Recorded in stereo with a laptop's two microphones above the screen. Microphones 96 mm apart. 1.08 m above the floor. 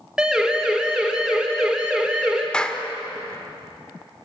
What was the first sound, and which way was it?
A siren, 10° right (ahead or behind).